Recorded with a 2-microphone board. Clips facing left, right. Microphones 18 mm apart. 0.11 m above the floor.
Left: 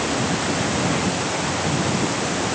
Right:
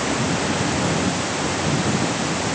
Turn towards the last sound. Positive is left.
No sound to turn to.